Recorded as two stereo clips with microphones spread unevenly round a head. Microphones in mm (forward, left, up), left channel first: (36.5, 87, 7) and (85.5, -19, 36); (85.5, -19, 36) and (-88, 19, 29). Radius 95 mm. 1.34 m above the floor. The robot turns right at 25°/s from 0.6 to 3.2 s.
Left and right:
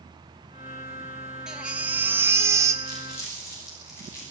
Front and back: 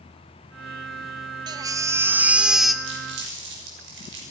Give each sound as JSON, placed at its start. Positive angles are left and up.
{"t": 1.5, "sound": "a baby crying", "azimuth_deg": -130, "distance_m": 0.7}
{"t": 2.8, "sound": "crumpling", "azimuth_deg": -175, "distance_m": 6.5}